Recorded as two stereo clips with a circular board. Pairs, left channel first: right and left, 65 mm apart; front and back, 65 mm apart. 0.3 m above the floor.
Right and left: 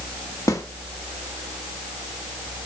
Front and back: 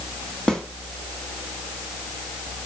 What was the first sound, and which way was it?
A snare drum, 75° right.